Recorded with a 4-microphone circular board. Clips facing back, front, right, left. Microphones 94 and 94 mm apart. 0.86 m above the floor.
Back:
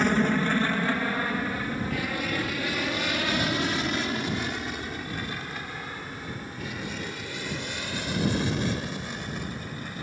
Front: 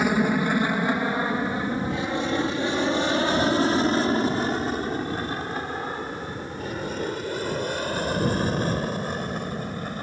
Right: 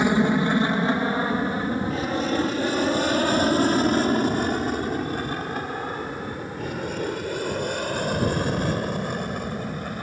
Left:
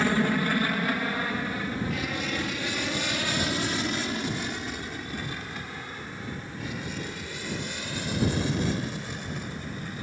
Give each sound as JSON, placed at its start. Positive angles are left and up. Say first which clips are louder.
{"t": 0.0, "sound": "an aircraft", "louder": "front 2 dB, right 5 dB", "azimuth_deg": -65}